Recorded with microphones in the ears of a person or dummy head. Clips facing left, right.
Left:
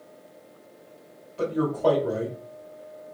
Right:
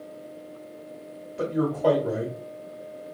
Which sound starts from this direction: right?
A man speaking, at 1.4 s.